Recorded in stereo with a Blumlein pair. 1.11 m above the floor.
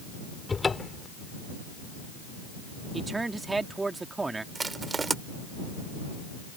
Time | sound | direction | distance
0.5 | a cupboard door | 10° left | ?
2.9 | a man speaking | 10° right | ?
4.5 | crushing | 15° right | ?